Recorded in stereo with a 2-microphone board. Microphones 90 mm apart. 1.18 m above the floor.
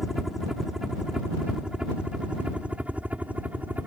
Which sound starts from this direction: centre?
A helicopter, at 0.0 s.